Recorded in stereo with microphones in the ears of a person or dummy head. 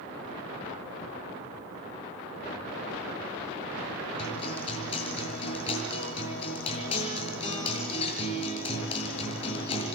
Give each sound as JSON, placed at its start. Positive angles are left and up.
{"t": 4.2, "sound": "a guitar", "side_deg": 30, "distance_m": 7.0}